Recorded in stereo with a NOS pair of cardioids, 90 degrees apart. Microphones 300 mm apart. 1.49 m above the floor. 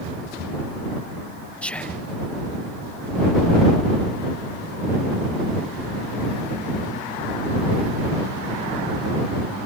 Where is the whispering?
5° left.